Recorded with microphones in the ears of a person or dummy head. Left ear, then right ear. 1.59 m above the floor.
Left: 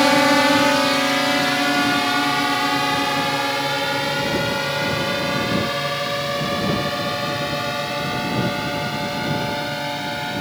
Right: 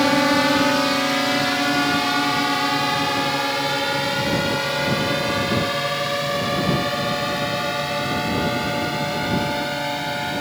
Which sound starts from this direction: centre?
A drone, at 0.0 s.